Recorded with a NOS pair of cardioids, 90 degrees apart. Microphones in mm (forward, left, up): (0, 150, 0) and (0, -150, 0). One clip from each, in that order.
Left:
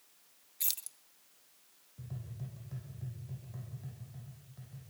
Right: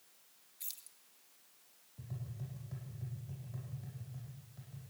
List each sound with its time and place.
0.6 s keys jangling: 55° left, 0.8 m
2.0 s tapping: straight ahead, 10 m